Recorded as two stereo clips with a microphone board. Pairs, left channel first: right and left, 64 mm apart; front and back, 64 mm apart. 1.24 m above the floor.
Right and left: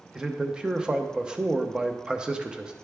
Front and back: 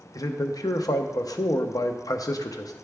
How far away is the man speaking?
About 0.7 m.